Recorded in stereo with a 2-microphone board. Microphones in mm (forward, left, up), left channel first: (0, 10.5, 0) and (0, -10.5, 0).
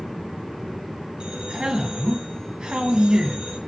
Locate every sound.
1.2 s a man speaking: 45° right (ahead or behind), 1.5 m